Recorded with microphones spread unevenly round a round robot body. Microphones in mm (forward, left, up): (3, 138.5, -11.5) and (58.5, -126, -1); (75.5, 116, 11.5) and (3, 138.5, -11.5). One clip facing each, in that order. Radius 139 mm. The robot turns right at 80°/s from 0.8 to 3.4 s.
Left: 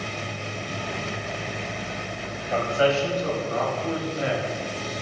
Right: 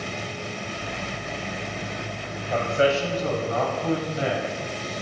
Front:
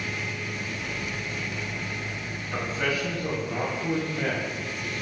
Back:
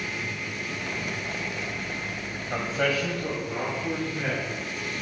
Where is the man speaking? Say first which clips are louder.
Even, back 2 dB; 170° right, 3.5 m; by 4.5 s 100° right, 3.5 m.